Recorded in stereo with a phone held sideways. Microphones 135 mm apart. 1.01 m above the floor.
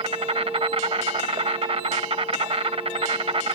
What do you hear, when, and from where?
0.0 s an insect: 45° right (ahead or behind)